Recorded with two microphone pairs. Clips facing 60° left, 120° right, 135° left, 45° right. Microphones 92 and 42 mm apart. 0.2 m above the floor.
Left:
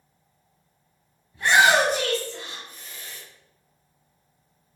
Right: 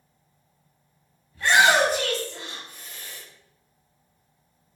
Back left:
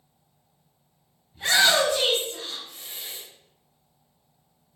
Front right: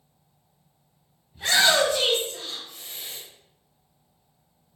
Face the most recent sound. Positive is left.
turn(degrees=-145)